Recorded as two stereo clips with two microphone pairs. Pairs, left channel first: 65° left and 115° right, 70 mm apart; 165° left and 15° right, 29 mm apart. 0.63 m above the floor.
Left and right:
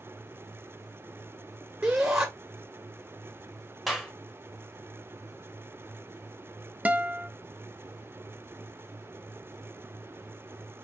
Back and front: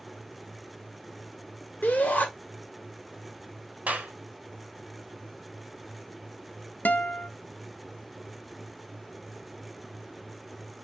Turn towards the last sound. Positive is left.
turn(degrees=180)